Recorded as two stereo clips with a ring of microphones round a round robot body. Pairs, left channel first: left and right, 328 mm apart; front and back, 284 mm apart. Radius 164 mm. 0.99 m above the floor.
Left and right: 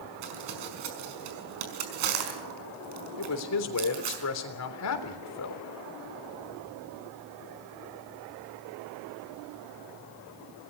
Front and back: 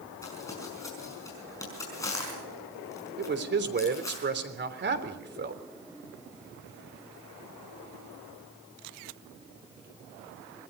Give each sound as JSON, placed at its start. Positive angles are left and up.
{"t": 0.2, "sound": "crumpling", "azimuth_deg": -80, "distance_m": 5.0}
{"t": 3.2, "sound": "a man speaking", "azimuth_deg": 130, "distance_m": 3.5}